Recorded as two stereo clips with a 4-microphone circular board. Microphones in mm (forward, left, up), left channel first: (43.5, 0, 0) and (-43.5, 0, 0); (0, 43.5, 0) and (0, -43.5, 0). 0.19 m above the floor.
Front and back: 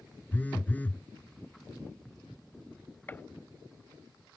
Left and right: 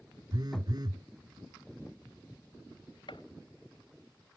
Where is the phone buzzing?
65° right.